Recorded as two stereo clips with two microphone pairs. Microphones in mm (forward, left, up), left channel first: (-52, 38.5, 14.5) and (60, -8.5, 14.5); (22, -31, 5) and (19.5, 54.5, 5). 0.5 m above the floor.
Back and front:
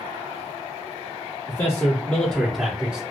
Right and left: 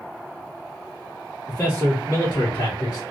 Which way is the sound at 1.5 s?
155° right.